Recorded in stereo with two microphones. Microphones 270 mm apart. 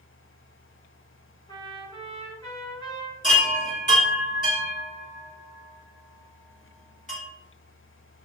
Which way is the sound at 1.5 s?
15° left (ahead or behind).